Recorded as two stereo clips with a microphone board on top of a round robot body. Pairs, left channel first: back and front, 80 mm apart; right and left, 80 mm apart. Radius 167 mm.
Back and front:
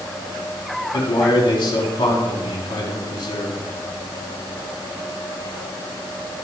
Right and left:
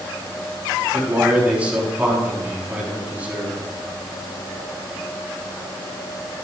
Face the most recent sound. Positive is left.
turn(degrees=160)